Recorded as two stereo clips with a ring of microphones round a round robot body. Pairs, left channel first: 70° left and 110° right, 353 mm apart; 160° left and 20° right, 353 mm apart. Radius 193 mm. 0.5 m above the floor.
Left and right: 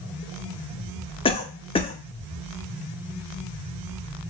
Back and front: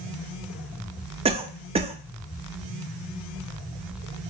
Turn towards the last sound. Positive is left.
turn(degrees=20)